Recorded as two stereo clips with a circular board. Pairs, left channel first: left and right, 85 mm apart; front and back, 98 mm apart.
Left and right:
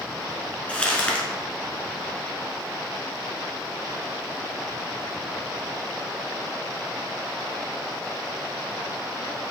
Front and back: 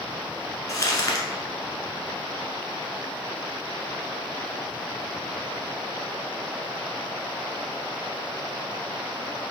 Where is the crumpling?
20° left, 0.8 m.